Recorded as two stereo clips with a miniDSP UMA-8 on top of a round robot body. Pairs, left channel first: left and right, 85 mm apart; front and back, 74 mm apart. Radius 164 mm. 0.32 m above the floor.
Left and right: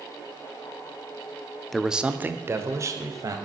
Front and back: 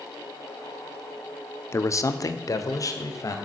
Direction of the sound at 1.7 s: 5° left.